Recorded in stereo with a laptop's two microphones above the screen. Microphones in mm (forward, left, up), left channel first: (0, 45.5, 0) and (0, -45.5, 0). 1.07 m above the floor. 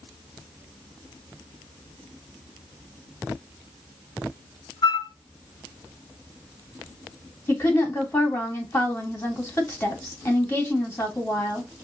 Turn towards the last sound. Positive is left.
turn(degrees=25)  # may be behind; listen again after turning